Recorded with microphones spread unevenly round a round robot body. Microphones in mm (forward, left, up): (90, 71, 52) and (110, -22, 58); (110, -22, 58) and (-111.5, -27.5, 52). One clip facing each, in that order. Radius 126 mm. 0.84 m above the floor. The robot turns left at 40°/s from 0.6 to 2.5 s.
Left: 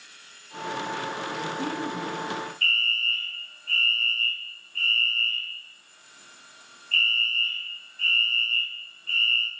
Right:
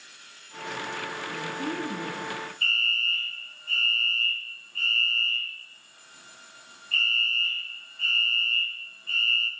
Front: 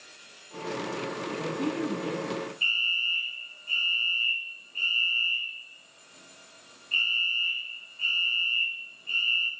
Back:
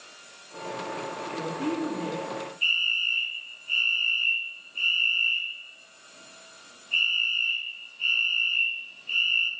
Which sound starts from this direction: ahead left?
A woman speaking, at 1.3 s.